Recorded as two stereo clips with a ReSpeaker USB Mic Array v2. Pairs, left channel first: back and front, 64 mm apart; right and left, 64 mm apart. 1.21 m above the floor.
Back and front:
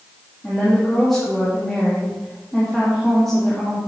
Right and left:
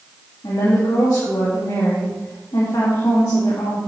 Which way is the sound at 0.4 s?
95° right.